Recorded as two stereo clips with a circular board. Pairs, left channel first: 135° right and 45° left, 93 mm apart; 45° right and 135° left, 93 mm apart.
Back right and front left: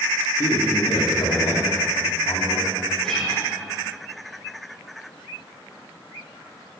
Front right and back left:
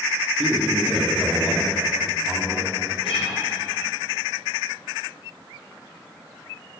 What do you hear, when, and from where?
0.4 s a man speaking: 145° right, 1.1 m
3.0 s a guitar: 50° right, 2 m